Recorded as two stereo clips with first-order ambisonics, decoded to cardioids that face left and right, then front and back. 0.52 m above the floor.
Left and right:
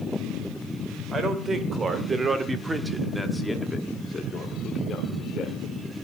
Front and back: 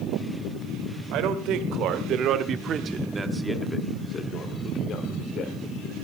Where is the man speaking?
155° right, 2.0 m; by 5.6 s 30° left, 1.8 m.